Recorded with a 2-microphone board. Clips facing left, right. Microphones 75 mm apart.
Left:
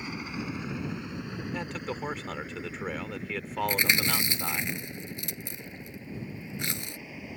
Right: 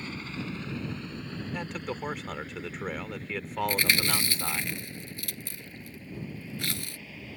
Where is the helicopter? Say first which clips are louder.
Left 1 dB; 15° left (ahead or behind).